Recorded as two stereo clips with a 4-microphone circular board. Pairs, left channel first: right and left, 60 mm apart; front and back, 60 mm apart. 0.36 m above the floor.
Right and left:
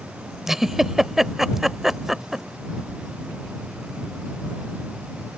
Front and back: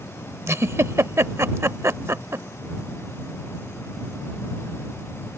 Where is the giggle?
175° left.